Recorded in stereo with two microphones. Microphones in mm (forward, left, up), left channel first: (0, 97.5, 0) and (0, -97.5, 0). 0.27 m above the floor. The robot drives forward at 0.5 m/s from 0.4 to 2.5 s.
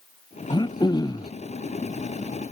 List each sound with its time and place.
0.5 s throat clearing: 25° left (ahead or behind); by 1.3 s 20° left (ahead or behind)